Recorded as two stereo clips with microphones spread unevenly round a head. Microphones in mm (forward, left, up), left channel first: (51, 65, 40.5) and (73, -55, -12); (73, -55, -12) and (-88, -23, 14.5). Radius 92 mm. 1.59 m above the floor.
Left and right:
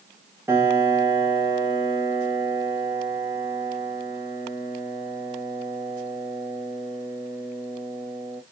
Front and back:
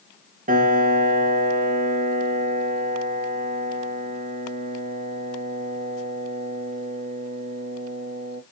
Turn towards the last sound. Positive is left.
turn(degrees=-170)